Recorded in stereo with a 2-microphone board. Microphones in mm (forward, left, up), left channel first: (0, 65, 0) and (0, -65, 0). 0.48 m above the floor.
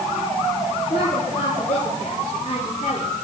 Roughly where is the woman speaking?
Left.